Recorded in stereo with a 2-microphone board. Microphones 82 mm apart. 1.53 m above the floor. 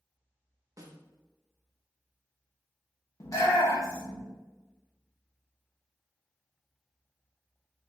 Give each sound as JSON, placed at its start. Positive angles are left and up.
{"t": 0.8, "sound": "a snare drum", "side_deg": -45, "distance_m": 0.6}
{"t": 3.2, "sound": "a shout", "side_deg": 45, "distance_m": 0.9}